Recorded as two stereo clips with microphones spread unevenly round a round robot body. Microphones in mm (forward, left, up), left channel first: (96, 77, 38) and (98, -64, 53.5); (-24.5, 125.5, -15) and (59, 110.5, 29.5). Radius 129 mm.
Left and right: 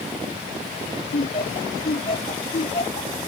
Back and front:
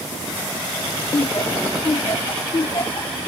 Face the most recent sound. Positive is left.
turn(degrees=135)